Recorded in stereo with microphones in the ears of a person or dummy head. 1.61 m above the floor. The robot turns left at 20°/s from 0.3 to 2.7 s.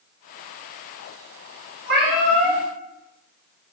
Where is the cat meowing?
40° right (ahead or behind), 1.9 m.